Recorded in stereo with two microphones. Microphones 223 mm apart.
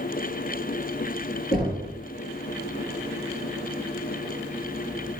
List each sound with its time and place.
1.5 s knocking: 45° left (ahead or behind), 3.5 m